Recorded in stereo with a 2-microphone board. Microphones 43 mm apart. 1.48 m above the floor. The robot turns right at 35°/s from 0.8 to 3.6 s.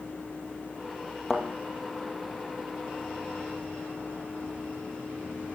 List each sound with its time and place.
1.3 s a thud: centre (ahead or behind), 1.9 m; by 1.4 s 5° left (ahead or behind), 1.9 m